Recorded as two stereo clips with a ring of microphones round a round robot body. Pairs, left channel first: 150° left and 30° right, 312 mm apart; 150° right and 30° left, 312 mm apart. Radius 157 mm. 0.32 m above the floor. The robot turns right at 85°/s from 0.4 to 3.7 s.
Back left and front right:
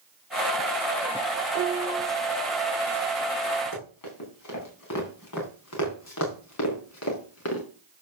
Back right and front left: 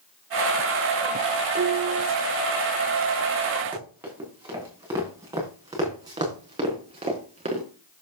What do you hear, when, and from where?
1.6 s a piano: 10° right, 0.8 m; by 2.1 s 35° left, 0.8 m
3.7 s running footsteps: 115° left, 7 m; by 7.6 s 100° left, 4 m